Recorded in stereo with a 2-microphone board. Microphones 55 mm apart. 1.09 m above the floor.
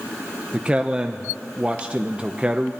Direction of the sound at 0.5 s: 20° right (ahead or behind).